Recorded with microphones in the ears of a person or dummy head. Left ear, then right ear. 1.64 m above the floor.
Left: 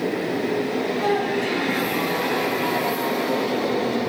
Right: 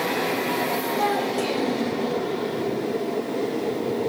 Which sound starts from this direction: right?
A child speaking, at 1.0 s.